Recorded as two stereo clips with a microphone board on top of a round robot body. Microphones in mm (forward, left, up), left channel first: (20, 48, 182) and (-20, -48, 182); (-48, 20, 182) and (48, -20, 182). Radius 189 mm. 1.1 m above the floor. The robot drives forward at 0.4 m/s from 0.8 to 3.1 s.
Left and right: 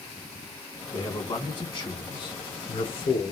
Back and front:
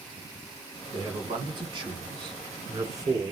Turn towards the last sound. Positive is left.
turn(degrees=35)